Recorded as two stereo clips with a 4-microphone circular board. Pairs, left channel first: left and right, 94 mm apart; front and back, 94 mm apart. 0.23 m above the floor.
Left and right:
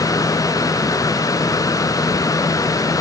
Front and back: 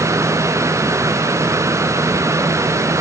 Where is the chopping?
No chopping in this recording.